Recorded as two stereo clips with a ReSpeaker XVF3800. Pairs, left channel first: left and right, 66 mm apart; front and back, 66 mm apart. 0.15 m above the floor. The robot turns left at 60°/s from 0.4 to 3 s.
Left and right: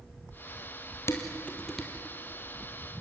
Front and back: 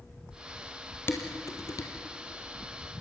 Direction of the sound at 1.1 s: 50° left.